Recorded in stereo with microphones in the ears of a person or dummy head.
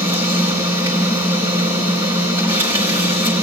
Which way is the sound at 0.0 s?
20° right (ahead or behind).